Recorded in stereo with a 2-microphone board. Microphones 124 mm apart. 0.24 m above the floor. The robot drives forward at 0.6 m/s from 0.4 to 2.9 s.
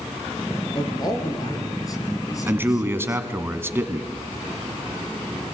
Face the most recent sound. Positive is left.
turn(degrees=-20)  # may be behind; listen again after turning